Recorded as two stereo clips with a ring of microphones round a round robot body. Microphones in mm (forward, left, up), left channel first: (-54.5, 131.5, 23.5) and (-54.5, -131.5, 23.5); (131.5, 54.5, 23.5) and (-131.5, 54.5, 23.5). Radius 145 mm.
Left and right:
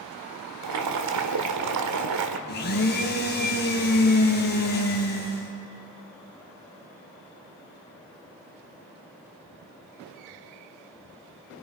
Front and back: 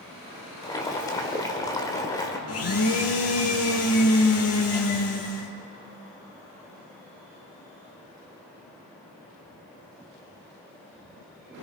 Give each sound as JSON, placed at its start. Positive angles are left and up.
{"t": 0.6, "sound": "boiling", "azimuth_deg": -75, "distance_m": 1.6}
{"t": 2.5, "sound": "a blender", "azimuth_deg": 30, "distance_m": 3.0}